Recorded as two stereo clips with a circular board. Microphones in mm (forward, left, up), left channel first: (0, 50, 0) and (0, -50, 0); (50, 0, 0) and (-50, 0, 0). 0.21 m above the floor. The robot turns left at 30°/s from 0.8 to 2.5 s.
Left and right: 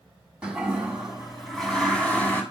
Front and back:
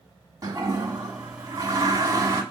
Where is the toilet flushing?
165° right, 1.7 m; by 2.4 s 150° left, 1.7 m.